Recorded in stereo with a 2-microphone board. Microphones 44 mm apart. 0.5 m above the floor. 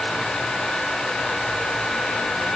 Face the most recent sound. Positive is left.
No sound to turn to.